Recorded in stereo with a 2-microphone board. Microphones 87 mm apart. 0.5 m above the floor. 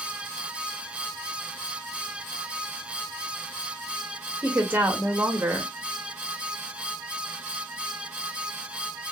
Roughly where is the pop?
No pop in this recording.